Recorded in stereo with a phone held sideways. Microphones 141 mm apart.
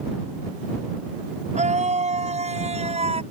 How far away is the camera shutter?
No camera shutter in this recording.